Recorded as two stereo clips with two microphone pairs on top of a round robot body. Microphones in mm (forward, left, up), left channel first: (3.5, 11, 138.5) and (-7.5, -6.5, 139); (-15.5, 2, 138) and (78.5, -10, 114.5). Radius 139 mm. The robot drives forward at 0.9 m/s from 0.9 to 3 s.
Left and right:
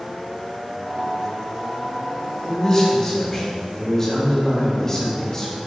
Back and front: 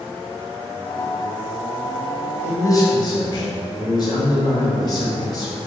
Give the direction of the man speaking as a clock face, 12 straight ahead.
8 o'clock.